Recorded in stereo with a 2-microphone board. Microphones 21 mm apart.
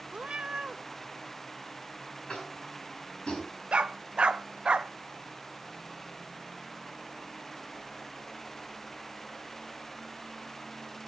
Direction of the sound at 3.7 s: 70° right (ahead or behind).